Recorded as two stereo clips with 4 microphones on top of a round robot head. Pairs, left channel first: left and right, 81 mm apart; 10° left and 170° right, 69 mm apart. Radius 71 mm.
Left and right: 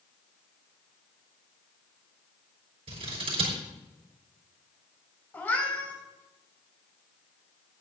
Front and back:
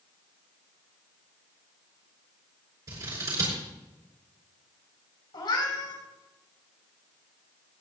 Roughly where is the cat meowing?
Ahead left.